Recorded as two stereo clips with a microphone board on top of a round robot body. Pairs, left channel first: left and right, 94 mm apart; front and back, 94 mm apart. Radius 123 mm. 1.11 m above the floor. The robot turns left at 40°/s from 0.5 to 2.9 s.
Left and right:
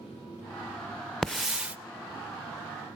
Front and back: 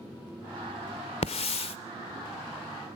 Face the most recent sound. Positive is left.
turn(degrees=-60)